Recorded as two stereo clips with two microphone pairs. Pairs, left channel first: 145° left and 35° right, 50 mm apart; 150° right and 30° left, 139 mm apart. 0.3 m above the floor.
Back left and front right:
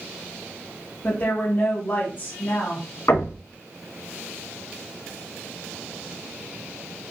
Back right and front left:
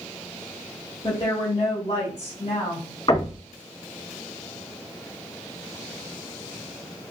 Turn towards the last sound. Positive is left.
turn(degrees=155)